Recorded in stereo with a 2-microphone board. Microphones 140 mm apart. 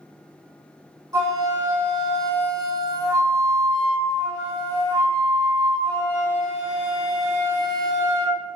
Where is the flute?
25° right (ahead or behind), 1.1 m.